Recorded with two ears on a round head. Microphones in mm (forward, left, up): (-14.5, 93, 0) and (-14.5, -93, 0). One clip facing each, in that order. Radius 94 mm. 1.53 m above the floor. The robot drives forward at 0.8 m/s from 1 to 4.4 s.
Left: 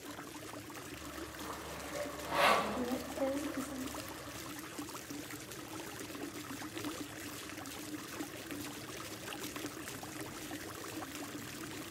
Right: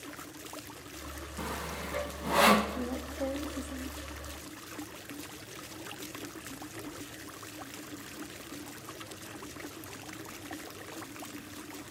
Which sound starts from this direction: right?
Sawing, at 1.4 s.